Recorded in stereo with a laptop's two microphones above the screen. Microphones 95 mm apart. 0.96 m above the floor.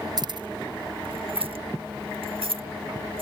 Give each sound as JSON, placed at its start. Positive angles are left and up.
{"t": 0.2, "sound": "keys jangling", "side_deg": -45}